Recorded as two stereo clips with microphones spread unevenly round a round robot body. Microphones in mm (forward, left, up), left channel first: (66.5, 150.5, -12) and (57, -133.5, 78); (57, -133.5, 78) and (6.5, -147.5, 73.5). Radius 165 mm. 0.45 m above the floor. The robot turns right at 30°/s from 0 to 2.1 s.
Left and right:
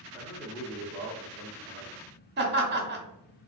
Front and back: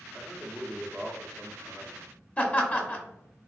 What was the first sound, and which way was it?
A man speaking, 70° left.